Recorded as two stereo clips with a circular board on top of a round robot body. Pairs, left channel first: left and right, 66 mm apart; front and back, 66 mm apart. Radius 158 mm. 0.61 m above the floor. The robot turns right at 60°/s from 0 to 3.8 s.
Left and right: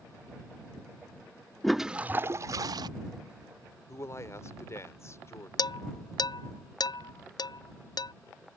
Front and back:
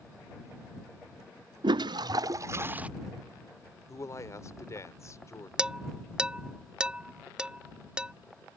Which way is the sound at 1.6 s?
175° left.